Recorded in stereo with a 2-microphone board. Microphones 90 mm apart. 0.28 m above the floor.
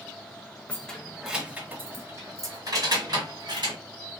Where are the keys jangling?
15° left (ahead or behind), 0.8 m; by 3.8 s 55° right (ahead or behind), 1.6 m.